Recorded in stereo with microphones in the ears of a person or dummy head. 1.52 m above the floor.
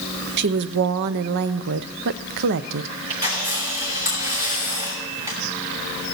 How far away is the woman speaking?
About 0.5 m.